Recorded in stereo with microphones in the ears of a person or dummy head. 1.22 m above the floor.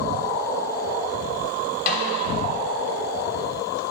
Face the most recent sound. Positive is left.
turn(degrees=45)  # may be behind; listen again after turning